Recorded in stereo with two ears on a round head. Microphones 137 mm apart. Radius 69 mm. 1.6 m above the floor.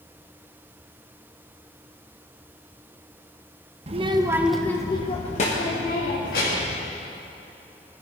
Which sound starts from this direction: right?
A child speaking, at 3.9 s.